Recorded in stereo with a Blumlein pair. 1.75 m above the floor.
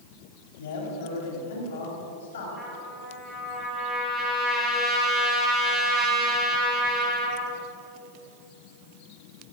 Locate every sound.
0.6 s a man speaking: 55° left, 4.5 m
2.6 s a trumpet: 5° left, 5 m